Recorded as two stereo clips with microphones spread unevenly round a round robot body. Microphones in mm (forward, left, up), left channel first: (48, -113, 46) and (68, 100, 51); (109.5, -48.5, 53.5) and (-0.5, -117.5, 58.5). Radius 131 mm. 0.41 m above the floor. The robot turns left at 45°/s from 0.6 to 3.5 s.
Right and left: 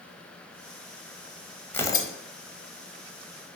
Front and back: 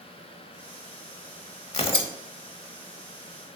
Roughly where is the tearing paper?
Ahead.